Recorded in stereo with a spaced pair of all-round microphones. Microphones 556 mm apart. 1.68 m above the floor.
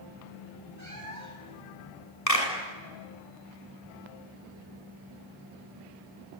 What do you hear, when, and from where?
0.8 s a cat meowing: 30° right (ahead or behind), 5.5 m
2.3 s a clap: 80° left, 7 m